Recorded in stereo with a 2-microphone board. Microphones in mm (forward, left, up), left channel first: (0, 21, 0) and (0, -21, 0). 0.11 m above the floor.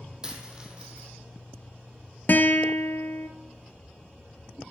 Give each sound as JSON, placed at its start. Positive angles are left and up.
{"t": 0.2, "sound": "a dropped coin", "side_deg": -20, "distance_m": 1.6}
{"t": 2.3, "sound": "a guitar", "side_deg": 50, "distance_m": 0.8}